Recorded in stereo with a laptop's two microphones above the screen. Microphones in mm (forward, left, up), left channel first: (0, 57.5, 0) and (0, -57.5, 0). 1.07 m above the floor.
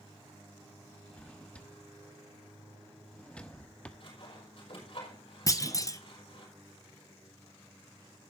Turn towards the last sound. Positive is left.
turn(degrees=30)  # may be behind; listen again after turning